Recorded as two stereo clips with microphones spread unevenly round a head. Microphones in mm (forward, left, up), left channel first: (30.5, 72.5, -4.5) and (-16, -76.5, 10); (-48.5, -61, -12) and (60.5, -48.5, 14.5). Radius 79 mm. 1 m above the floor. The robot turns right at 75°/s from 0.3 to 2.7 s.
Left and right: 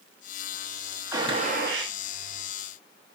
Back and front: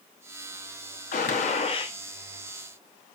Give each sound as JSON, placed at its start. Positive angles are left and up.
{"t": 1.1, "sound": "a gunshot", "azimuth_deg": 180, "distance_m": 0.9}